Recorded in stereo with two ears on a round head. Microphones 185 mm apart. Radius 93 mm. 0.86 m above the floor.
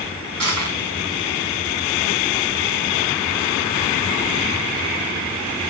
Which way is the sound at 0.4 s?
90° right.